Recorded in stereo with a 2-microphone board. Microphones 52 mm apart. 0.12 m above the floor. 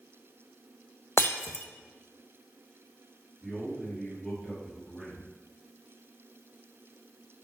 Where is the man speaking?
5° left (ahead or behind), 2.5 m.